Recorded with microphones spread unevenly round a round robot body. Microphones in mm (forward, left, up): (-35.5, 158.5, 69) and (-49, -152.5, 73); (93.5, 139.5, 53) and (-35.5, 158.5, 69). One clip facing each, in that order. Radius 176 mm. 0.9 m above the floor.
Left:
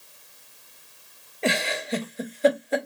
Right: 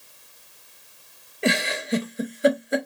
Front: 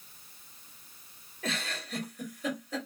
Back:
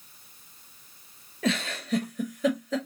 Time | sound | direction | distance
1.4 | a giggle | 170° right | 0.8 m